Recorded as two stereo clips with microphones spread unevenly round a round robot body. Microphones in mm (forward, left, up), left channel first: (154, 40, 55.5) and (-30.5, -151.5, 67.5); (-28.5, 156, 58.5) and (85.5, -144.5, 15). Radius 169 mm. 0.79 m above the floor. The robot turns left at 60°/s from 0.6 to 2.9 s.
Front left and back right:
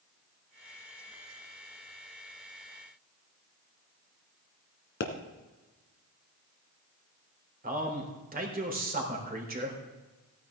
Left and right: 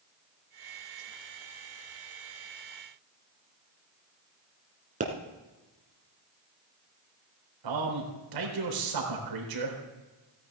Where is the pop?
Straight ahead, 1.7 m.